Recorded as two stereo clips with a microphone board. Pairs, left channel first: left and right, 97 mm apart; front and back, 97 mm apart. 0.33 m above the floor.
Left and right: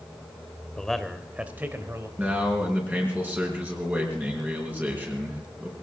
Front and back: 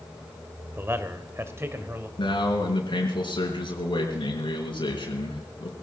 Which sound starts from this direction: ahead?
A man speaking, at 2.2 s.